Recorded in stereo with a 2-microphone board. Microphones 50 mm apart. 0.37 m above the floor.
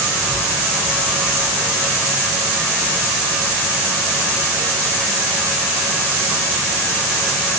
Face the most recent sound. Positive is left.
No sound to turn to.